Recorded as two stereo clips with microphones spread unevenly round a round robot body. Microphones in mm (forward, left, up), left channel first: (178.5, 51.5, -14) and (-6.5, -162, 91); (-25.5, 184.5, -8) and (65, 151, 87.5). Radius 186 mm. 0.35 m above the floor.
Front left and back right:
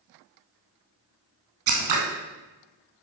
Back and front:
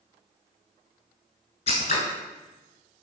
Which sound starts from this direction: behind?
Scissors, at 1.7 s.